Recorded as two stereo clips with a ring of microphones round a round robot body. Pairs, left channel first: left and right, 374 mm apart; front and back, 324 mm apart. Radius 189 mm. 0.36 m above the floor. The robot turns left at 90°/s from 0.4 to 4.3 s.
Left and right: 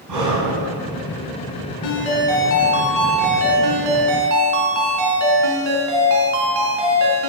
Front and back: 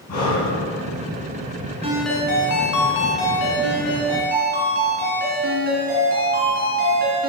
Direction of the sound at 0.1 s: 50° right.